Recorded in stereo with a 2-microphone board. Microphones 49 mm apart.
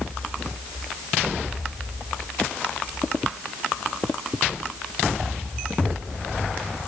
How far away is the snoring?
I don't hear snoring.